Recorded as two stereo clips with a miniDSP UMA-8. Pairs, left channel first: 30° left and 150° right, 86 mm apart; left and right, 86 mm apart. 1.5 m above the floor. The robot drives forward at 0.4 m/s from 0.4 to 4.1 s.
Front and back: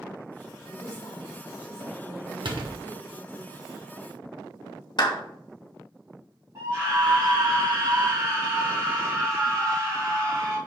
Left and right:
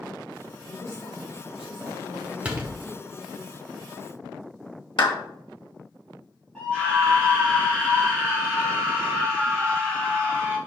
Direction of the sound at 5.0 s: 65° left.